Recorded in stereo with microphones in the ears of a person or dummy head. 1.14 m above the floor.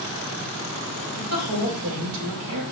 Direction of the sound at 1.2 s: 85° right.